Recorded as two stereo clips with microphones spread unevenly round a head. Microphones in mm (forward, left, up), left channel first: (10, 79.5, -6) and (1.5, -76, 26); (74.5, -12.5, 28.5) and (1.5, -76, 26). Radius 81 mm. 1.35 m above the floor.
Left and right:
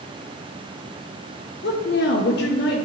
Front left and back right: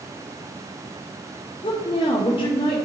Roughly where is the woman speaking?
Left.